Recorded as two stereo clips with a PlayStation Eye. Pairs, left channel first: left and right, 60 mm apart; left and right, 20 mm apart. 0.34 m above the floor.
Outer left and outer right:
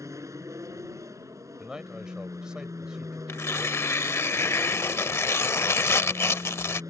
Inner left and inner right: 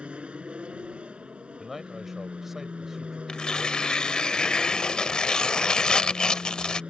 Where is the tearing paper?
45° left (ahead or behind).